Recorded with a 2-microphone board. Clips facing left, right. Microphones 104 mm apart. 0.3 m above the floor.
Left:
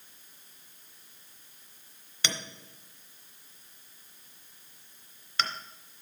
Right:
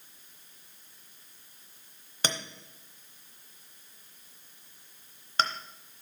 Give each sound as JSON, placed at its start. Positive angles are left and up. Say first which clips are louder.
{"t": 2.2, "sound": "a clink", "louder": "right 3 dB", "side_deg": -40, "distance_m": 0.9}